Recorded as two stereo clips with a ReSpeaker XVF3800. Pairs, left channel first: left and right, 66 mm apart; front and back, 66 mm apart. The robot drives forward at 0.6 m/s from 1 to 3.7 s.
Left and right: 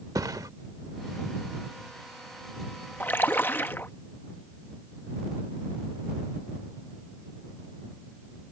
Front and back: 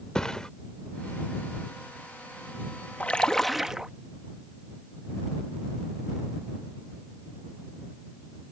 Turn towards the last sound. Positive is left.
turn(degrees=105)